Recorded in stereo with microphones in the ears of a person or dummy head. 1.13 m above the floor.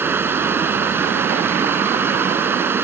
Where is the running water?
10° right (ahead or behind).